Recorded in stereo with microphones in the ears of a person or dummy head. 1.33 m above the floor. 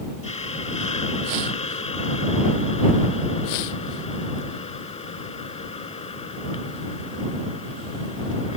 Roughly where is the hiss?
Left.